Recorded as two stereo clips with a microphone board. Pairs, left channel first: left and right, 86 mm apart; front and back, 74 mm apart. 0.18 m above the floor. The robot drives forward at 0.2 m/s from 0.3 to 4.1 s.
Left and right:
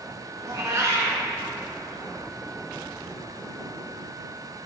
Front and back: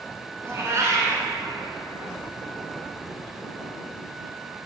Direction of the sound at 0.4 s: 130° right.